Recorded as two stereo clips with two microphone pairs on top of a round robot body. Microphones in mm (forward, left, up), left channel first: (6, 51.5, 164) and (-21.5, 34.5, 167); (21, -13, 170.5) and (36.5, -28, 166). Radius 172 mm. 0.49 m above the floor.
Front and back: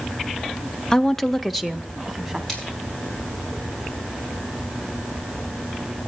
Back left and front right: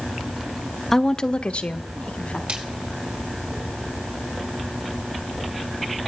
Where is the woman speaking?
50° left, 0.7 m; by 2.4 s 125° left, 1.5 m.